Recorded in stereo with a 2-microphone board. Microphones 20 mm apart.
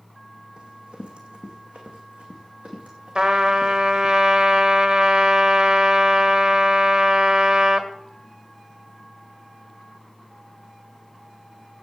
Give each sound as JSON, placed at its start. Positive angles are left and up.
{"t": 0.6, "sound": "running footsteps", "side_deg": -55, "distance_m": 3.0}
{"t": 3.1, "sound": "a trumpet", "side_deg": -40, "distance_m": 1.6}